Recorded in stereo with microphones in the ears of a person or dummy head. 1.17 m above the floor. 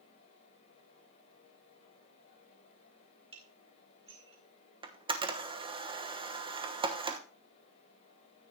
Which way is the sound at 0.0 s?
45° left (ahead or behind).